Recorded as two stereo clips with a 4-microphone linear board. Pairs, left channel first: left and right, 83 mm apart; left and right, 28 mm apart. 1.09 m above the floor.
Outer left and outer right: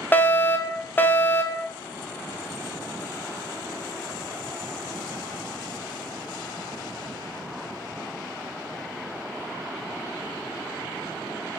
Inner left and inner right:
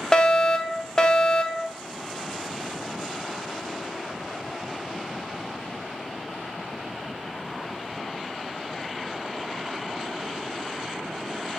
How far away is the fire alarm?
About 1.1 m.